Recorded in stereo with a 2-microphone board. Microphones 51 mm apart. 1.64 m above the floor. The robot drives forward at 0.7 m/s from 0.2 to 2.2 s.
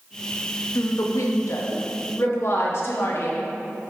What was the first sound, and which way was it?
A woman speaking, 70° left (ahead or behind).